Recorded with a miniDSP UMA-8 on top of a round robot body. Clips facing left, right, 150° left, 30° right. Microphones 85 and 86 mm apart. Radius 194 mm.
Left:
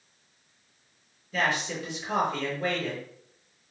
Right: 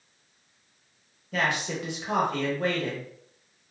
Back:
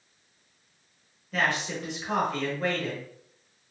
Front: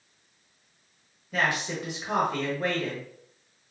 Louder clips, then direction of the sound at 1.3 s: Even, even; 110° right.